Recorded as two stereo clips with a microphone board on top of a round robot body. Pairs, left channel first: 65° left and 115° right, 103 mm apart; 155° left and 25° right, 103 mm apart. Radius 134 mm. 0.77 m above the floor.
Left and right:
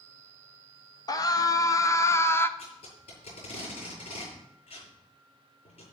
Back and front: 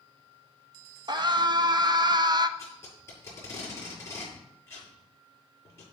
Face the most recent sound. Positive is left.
turn(degrees=90)